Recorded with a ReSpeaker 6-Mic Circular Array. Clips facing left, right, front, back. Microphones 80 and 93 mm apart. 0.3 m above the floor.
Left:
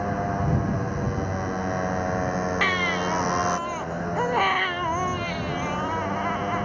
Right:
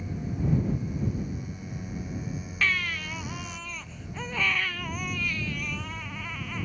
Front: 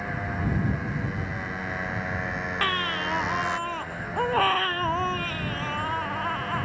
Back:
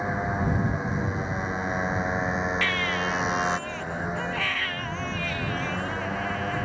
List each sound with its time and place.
0.0 s a motorcycle: 110° left
2.6 s a baby crying: 45° left